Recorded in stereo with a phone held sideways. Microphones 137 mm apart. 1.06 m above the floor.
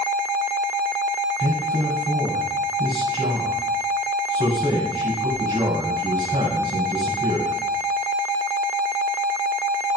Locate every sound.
1.4 s a man speaking: 35° right (ahead or behind), 7 m